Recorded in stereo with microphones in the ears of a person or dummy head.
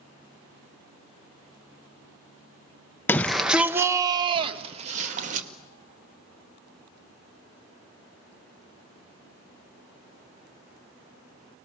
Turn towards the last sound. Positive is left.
turn(degrees=-50)  # may be behind; listen again after turning